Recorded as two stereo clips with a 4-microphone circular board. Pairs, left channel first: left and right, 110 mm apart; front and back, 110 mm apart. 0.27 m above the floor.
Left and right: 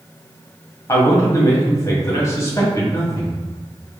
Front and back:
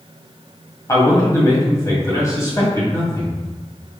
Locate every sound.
0.9 s a man speaking: 45° left, 1.8 m